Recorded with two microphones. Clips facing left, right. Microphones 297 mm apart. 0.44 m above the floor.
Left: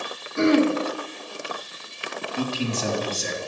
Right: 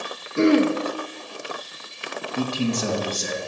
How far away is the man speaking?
About 2.5 m.